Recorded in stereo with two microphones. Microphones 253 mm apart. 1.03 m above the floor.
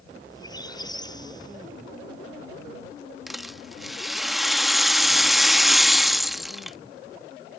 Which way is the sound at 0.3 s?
15° left (ahead or behind).